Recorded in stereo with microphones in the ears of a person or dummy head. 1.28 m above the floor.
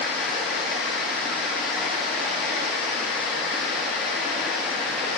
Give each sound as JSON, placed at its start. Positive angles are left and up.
{"t": 0.0, "sound": "running water", "side_deg": 0, "distance_m": 2.5}